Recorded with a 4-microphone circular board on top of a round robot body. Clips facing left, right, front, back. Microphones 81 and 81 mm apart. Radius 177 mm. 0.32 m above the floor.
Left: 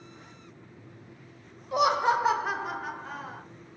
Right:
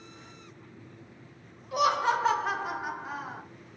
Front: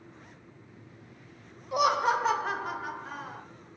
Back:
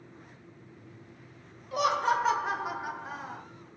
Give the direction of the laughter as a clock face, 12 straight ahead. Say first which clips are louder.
Left 2 dB, front 1 dB; 10 o'clock.